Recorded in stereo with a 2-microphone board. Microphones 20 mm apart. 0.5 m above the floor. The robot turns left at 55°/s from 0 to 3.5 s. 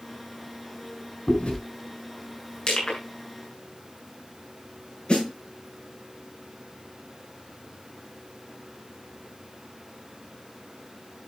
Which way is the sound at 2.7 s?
50° left (ahead or behind).